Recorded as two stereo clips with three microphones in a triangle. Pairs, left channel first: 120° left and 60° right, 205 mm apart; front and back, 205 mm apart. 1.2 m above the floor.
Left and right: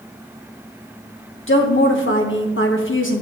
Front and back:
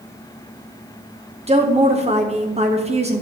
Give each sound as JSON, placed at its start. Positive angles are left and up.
{"t": 1.5, "sound": "a woman speaking", "azimuth_deg": 120, "distance_m": 1.6}